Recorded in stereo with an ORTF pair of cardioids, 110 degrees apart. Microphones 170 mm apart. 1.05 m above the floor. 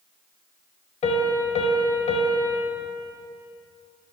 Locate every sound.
1.0 s a piano: 45° left, 2.0 m